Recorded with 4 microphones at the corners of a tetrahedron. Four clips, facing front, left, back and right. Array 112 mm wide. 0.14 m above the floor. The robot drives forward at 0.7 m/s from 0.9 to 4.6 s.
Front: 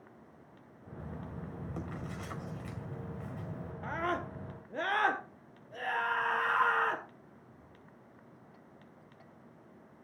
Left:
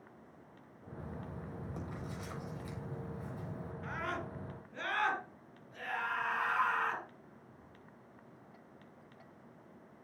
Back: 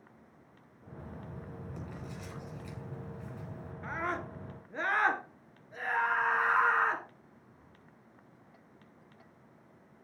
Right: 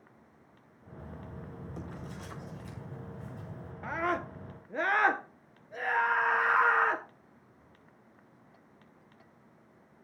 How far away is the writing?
About 7 m.